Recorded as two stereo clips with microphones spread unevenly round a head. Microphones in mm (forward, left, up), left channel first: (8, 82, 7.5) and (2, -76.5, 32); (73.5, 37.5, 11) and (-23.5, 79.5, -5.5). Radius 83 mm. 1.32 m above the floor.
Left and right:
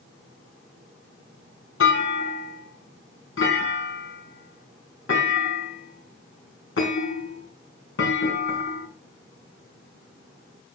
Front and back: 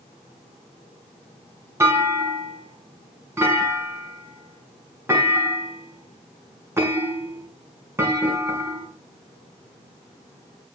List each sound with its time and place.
1.8 s a clunk: 90° left, 6 m